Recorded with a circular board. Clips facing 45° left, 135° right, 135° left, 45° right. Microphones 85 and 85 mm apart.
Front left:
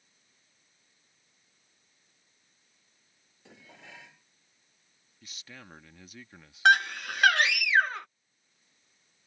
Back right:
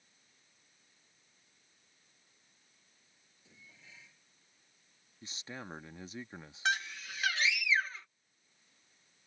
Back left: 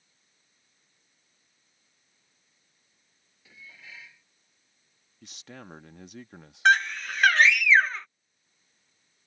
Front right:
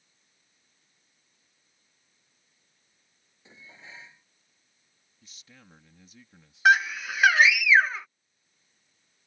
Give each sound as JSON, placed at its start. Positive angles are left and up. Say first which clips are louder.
{"t": 3.5, "sound": "dishes clattering", "louder": "front left 9 dB, even", "azimuth_deg": 20}
{"t": 5.2, "sound": "a man speaking", "louder": "back right 4 dB, back left 11 dB", "azimuth_deg": 160}
{"t": 6.7, "sound": "a scream", "louder": "front left 12 dB, front right 1 dB", "azimuth_deg": 35}